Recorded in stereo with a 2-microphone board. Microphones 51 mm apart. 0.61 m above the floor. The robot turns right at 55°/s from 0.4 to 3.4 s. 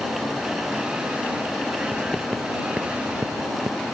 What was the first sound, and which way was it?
Writing, 25° left (ahead or behind).